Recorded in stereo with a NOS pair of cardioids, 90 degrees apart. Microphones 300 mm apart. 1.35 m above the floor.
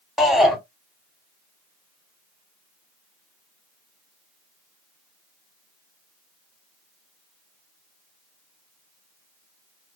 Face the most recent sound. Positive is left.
turn(degrees=0)